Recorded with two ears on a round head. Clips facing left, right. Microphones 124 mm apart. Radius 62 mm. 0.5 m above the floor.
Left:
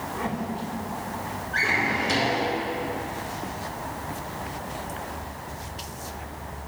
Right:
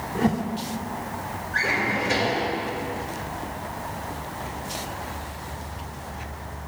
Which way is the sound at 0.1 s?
50° right (ahead or behind).